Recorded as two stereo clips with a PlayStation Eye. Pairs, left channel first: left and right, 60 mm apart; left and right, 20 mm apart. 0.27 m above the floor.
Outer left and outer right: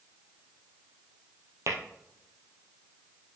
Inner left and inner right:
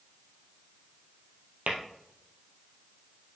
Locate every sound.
1.7 s tapping: 60° right (ahead or behind), 2 m